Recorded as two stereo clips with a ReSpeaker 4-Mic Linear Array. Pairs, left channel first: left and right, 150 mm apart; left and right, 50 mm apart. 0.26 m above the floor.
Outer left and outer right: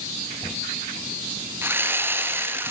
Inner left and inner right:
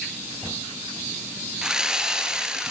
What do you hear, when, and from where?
1.6 s sawing: 15° right (ahead or behind), 2.5 m